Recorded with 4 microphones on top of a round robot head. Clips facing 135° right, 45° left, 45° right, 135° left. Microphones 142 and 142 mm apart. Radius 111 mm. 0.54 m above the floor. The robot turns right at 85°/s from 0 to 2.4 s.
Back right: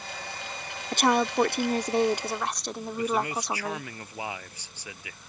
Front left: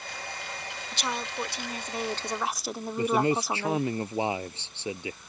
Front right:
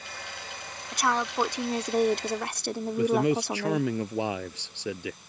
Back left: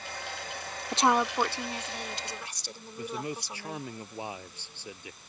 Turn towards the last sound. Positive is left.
turn(degrees=-20)